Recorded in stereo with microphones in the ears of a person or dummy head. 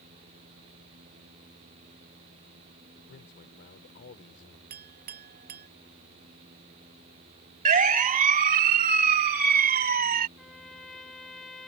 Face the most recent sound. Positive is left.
turn(degrees=0)  # may be behind; listen again after turning